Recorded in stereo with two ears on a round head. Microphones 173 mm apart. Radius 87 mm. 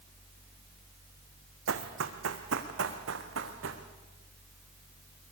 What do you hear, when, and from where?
1.7 s running footsteps: 75° right (ahead or behind), 1.9 m